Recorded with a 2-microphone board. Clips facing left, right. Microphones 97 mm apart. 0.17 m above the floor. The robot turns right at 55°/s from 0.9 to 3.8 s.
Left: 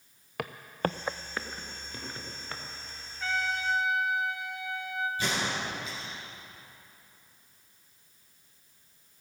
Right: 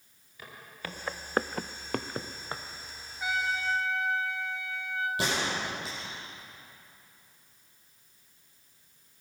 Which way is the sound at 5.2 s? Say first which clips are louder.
Right 1 dB; 75° right (ahead or behind).